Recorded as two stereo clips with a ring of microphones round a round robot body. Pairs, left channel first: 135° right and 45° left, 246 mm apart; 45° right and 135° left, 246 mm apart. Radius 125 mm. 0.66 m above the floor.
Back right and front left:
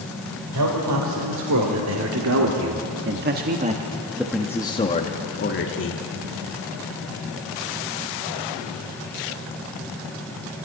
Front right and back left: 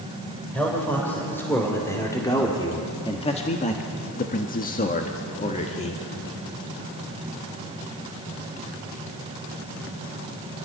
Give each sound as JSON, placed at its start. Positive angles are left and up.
{"t": 0.5, "sound": "a man speaking", "azimuth_deg": 40, "distance_m": 3.5}